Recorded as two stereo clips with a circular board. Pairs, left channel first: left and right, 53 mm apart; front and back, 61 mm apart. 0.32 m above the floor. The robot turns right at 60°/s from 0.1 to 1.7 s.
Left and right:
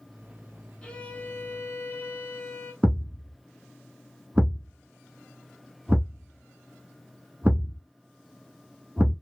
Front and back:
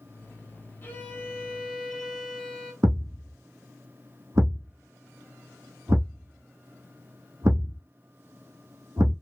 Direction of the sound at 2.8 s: 150° right.